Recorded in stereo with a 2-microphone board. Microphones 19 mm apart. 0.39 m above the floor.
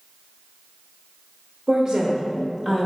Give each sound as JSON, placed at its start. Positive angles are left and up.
{"t": 1.7, "sound": "a woman speaking", "side_deg": -25, "distance_m": 1.1}